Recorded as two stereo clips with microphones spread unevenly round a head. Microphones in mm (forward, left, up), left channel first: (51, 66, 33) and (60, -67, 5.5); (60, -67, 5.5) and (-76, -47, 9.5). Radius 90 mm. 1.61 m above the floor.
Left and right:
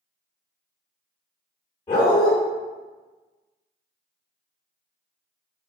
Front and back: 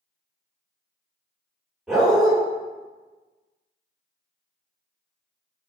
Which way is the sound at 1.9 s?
90° left.